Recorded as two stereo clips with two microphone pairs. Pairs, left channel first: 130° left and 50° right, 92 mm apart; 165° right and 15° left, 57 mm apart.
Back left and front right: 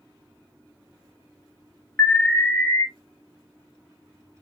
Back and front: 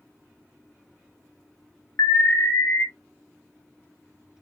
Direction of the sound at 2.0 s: 160° right.